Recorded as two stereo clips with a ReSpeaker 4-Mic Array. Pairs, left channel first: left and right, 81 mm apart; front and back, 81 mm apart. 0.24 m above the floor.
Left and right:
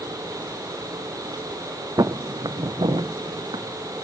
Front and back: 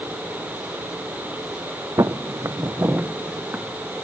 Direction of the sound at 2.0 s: 135° right.